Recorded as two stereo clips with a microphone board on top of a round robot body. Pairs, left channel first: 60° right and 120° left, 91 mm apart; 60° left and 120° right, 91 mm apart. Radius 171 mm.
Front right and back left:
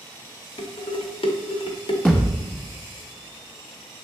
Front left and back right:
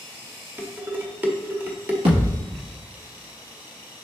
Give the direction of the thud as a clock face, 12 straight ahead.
5 o'clock.